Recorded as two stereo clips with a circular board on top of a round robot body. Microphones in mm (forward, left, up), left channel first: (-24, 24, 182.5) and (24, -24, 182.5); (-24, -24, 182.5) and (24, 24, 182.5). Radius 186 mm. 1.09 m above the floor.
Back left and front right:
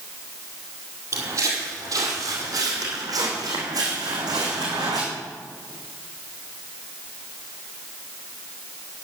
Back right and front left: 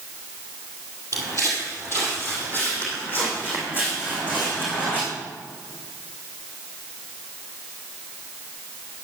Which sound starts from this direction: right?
Footsteps, at 1.1 s.